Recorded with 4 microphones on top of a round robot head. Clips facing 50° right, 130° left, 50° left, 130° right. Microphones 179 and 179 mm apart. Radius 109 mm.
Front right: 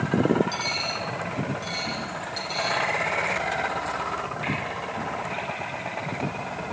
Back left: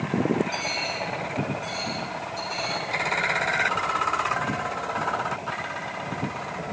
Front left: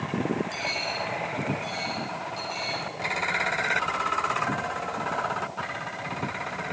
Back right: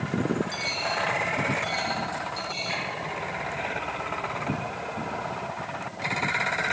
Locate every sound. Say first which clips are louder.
0.5 s a dropped coin: back left 1 dB, back right 1 dB; 50° right, 7 m